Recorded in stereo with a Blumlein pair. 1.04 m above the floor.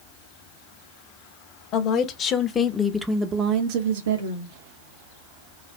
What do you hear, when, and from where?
1.7 s a woman speaking: 40° left, 1.4 m; by 4.6 s 75° right, 1.2 m